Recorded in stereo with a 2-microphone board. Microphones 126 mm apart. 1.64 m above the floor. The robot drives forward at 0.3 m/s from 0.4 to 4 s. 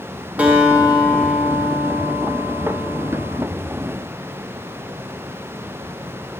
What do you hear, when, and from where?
0.4 s a guitar: 10° right (ahead or behind), 0.7 m; by 3.4 s 5° right (ahead or behind), 1.4 m